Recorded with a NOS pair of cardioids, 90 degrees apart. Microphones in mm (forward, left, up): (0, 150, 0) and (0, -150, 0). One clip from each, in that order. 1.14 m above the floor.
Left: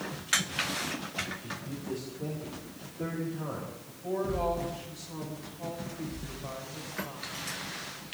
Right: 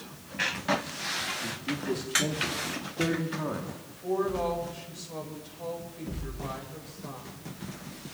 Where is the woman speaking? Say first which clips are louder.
Right 3 dB; 35° right, 5 m.